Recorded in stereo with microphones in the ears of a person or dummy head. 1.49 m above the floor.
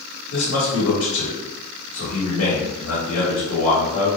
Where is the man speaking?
80° left, 1.1 m.